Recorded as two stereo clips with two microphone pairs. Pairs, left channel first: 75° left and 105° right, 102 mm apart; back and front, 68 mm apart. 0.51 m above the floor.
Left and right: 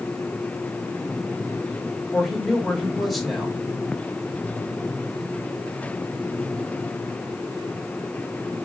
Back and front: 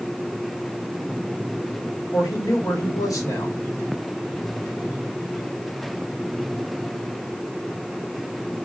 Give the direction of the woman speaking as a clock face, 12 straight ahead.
7 o'clock.